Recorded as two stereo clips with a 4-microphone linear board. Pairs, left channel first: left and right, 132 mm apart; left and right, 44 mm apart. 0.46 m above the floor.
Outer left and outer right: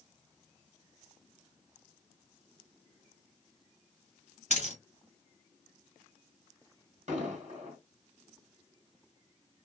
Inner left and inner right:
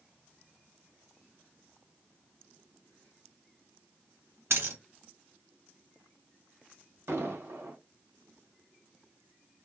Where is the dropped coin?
65° right (ahead or behind), 1.1 m.